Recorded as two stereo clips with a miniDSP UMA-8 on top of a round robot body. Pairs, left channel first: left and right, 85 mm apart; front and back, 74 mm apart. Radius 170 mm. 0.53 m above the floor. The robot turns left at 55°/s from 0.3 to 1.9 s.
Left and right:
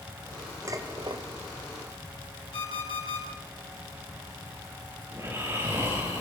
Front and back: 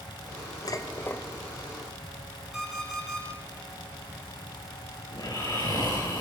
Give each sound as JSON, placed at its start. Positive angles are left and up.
{"t": 0.7, "sound": "dishes clattering", "azimuth_deg": -35, "distance_m": 1.8}
{"t": 2.5, "sound": "an alarm clock", "azimuth_deg": 95, "distance_m": 6.5}
{"t": 5.1, "sound": "snoring", "azimuth_deg": -30, "distance_m": 6.0}